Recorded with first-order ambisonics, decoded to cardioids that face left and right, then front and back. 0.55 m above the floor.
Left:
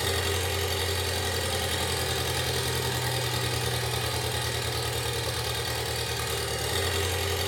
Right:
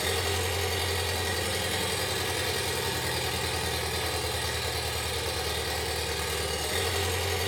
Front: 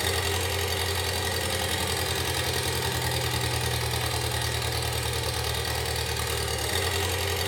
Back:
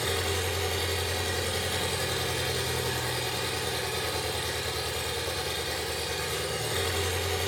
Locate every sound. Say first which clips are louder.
0.0 s an engine running: even, front 2 dB; 10° left, 1.0 m